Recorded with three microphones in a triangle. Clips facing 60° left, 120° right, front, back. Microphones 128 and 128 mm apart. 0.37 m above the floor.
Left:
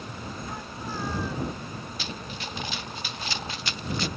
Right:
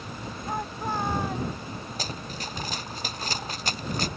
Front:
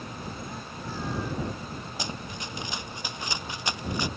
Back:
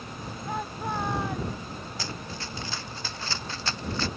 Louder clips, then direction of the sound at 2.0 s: Right 1 dB, front 1 dB; 70° right.